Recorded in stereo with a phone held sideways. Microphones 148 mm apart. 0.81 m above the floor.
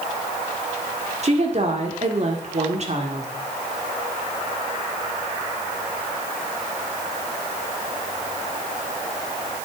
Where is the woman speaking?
45° right (ahead or behind), 1.8 m.